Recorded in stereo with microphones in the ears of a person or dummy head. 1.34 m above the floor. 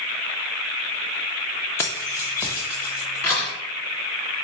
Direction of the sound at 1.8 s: 20° left (ahead or behind).